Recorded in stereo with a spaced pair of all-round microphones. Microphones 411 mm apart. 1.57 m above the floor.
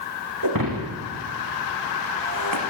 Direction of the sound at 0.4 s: 55° right (ahead or behind).